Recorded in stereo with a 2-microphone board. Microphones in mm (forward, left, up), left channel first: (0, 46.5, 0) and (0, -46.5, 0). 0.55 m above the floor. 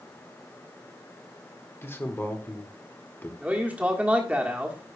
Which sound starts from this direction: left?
A man speaking, at 1.8 s.